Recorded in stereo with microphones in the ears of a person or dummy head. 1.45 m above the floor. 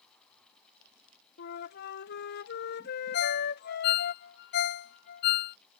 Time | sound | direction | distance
1.4 | a flute | 60° left (ahead or behind) | ?
3.1 | a ringtone | 65° left (ahead or behind) | ?